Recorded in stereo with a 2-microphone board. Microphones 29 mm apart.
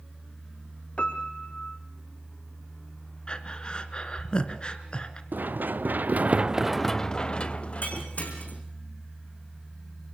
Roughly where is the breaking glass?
Left.